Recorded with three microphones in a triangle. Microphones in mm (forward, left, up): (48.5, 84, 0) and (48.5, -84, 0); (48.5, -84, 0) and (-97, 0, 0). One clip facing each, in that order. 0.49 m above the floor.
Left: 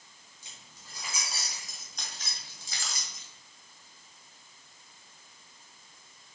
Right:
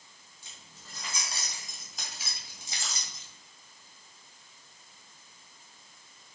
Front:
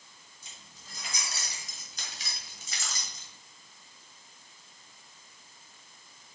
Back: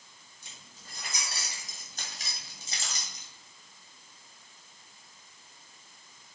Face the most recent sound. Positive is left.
turn(degrees=-135)